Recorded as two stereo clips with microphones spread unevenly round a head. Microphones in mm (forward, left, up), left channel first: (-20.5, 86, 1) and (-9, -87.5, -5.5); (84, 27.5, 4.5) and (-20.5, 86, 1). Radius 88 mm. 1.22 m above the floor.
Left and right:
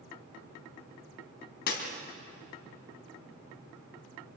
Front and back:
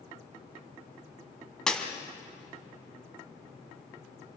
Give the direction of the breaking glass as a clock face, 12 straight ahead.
10 o'clock.